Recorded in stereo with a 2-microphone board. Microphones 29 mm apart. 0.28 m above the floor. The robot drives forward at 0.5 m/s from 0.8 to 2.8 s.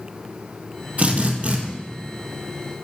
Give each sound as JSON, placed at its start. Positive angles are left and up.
{"t": 1.0, "sound": "a drill", "side_deg": -40, "distance_m": 3.0}